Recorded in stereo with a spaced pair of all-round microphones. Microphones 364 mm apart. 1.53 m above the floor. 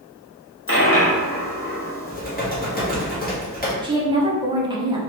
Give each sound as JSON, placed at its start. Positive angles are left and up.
{"t": 0.7, "sound": "a dropped coin", "side_deg": 35, "distance_m": 0.9}
{"t": 2.1, "sound": "typing on a keyboard", "side_deg": 25, "distance_m": 1.1}
{"t": 3.8, "sound": "a woman speaking", "side_deg": -10, "distance_m": 0.7}